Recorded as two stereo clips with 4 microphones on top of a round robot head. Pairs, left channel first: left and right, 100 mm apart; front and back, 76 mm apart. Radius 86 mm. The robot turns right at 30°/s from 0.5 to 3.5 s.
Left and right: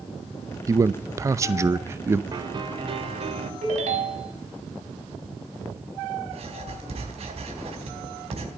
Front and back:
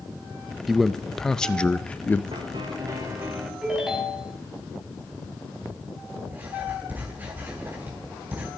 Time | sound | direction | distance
0.7 | a man speaking | 95° right | 0.7 m
2.3 | a piano | 140° right | 2 m
3.6 | a ringtone | 95° right | 4 m
6.3 | writing | 110° right | 4.5 m